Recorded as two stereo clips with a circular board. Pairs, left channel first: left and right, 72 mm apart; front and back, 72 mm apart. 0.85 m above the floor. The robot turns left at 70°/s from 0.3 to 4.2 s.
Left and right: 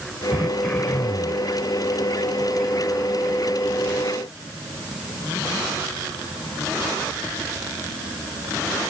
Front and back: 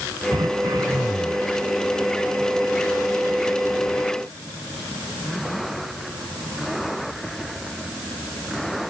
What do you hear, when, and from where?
0.3 s throat clearing: 165° right; by 1.5 s 115° left